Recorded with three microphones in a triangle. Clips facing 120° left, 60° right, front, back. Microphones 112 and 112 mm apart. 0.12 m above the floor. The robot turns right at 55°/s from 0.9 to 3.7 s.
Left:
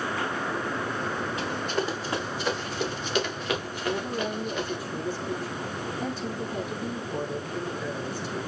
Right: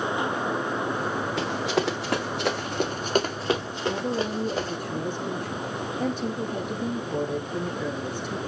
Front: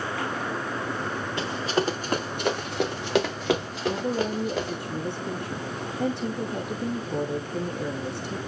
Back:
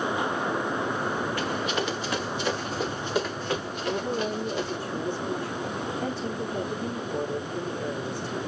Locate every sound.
1.4 s running footsteps: 65° right, 3 m; by 4.8 s 5° right, 4.5 m
3.9 s a woman speaking: 20° right, 6 m